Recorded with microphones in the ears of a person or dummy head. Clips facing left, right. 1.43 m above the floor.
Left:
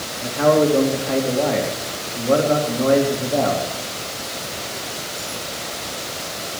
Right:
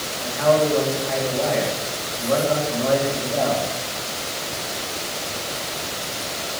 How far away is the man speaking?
About 3 m.